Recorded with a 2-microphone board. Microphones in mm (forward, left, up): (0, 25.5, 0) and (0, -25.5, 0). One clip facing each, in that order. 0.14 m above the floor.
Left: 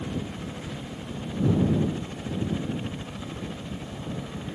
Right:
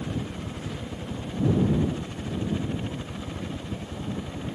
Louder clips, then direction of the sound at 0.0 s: Even; 60° right (ahead or behind).